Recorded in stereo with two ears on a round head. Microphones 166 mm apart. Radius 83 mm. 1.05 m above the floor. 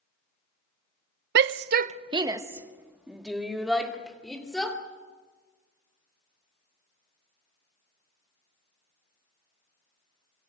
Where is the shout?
60° right (ahead or behind), 0.5 m; by 4.8 s 5° left (ahead or behind), 3.5 m.